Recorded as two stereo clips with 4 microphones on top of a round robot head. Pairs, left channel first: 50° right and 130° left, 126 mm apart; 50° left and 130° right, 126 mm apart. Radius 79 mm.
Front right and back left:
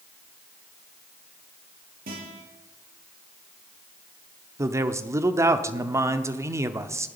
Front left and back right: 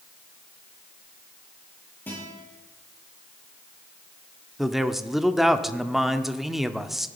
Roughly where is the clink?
No clink in this recording.